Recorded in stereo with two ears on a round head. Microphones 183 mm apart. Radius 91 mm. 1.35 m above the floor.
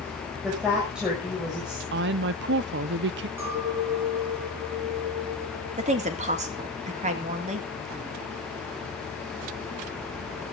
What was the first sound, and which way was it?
A woman speaking, 5° right (ahead or behind).